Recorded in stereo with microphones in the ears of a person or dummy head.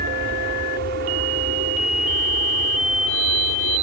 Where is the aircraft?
50° right (ahead or behind); by 3.8 s 45° right (ahead or behind).